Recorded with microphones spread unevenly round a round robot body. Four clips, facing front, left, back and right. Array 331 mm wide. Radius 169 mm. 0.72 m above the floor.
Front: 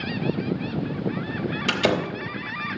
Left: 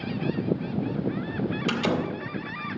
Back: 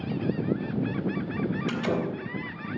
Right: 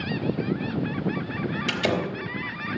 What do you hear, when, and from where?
1.7 s a door slam: straight ahead, 3 m